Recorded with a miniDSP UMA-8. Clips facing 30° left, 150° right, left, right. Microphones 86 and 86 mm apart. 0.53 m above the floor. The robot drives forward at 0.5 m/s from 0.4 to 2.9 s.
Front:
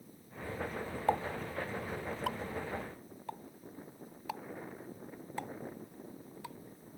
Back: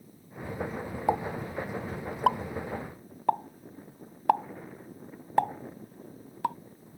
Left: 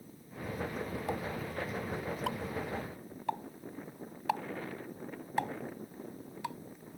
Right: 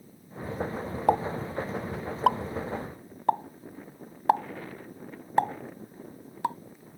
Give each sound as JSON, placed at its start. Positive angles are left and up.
{"t": 1.1, "sound": "a pop", "azimuth_deg": -75}